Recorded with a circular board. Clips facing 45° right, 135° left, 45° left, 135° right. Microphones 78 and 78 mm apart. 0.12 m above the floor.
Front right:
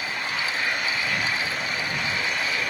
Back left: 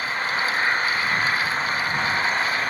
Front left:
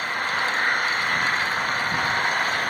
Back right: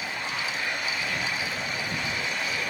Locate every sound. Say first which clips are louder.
0.0 s an engine running: back left 4 dB, front left 7 dB; 80° left